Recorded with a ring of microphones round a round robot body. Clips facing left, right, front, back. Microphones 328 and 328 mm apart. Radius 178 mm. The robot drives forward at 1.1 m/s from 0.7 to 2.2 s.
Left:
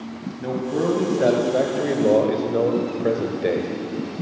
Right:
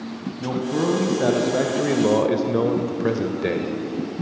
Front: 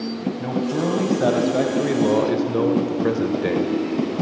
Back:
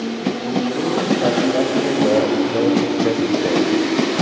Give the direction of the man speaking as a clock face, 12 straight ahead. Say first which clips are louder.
Even, even; 1 o'clock.